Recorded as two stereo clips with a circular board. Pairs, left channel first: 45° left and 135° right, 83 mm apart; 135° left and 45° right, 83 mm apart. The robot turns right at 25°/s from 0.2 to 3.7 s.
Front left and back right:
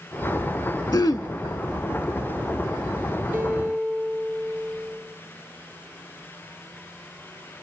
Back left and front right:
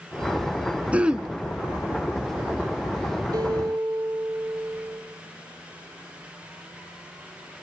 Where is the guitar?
70° right, 3.5 m; by 5.0 s 60° right, 3.5 m.